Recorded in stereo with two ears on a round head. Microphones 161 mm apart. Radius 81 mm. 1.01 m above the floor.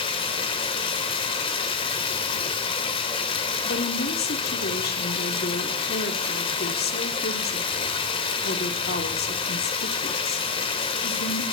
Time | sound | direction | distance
0.0 | running water | 30° left (ahead or behind) | 1.8 m
3.6 | a woman speaking | 55° left (ahead or behind) | 2.5 m